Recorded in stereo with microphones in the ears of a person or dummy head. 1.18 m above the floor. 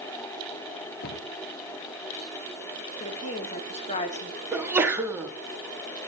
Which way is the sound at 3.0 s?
35° left (ahead or behind).